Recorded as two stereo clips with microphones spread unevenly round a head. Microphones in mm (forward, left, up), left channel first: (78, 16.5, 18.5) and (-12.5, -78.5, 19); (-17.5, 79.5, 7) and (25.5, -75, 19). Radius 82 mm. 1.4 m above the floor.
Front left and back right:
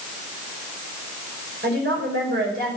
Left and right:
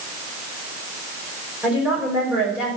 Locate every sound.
1.6 s a woman speaking: 155° right, 5.5 m